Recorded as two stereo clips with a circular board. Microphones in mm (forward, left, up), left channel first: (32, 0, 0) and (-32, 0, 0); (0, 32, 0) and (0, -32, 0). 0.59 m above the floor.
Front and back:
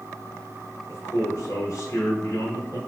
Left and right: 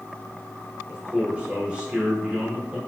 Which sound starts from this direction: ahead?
A man speaking, at 0.9 s.